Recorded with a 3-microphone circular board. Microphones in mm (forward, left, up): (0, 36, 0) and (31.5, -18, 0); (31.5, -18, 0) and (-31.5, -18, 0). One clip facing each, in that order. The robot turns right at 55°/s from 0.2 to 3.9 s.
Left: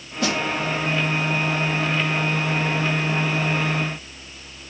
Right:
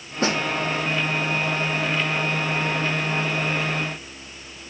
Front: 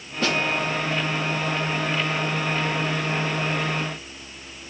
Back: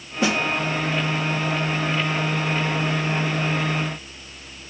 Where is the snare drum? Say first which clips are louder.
Right 1 dB, back 2 dB; 105° right, 0.8 m; by 0.4 s 95° right, 0.8 m.